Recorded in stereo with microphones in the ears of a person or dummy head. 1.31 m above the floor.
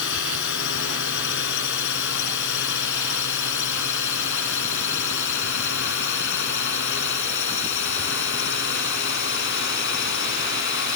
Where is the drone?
65° left (ahead or behind); by 11.0 s 55° left (ahead or behind).